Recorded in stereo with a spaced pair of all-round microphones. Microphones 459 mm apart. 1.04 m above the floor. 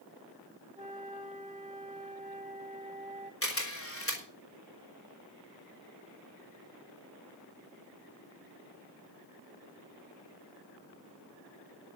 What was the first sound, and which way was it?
A flute, 15° right (ahead or behind).